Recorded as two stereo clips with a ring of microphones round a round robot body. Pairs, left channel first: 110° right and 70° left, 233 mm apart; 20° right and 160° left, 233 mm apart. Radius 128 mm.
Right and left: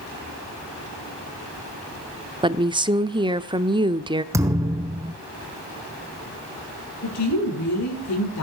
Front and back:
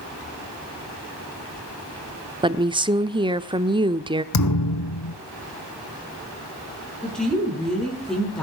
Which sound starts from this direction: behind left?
A woman speaking, at 2.4 s.